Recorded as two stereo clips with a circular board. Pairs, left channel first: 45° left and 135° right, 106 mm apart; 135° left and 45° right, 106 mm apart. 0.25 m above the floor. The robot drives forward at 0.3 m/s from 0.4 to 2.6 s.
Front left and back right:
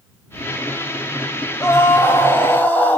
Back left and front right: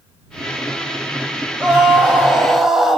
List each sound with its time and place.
1.6 s a scream: 20° left, 1.3 m; by 3.0 s 40° left, 1.1 m